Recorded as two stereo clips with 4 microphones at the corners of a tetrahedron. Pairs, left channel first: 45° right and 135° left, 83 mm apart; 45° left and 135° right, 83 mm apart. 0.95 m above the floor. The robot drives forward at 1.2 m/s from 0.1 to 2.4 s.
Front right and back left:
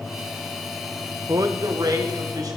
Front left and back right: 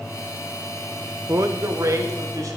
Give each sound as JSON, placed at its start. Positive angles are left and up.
{"t": 1.3, "sound": "a man speaking", "azimuth_deg": 175, "distance_m": 0.6}